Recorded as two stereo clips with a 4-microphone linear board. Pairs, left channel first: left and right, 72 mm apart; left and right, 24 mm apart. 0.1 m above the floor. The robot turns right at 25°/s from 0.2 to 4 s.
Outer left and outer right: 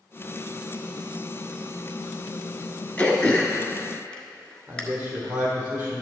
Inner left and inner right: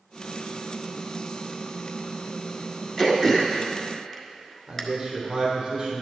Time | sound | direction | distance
3.0 | throat clearing | 20° left (ahead or behind) | 1.3 m
4.7 | a man speaking | 25° right (ahead or behind) | 3.5 m